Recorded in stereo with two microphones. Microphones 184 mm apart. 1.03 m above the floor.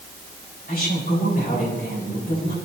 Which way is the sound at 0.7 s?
55° left (ahead or behind).